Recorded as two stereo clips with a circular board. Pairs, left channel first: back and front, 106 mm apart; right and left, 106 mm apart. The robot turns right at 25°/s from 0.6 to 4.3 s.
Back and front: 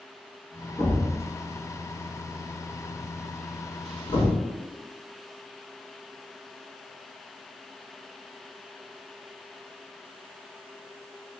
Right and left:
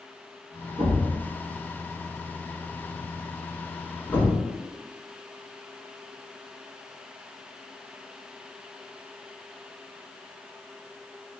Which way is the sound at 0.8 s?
110° left.